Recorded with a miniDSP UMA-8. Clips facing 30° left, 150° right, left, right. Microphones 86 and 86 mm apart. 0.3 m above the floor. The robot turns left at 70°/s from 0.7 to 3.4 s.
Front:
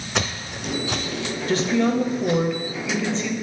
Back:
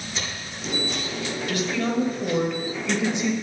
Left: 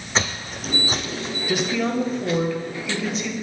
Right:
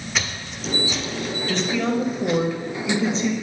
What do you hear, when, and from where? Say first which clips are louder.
0.1 s footsteps: front 9 dB, left 5 dB; 35° left, 0.8 m; by 2.5 s 30° right, 1.4 m
1.5 s a woman speaking: front 6 dB, even; 25° left, 1.0 m; by 3.3 s 105° right, 1.0 m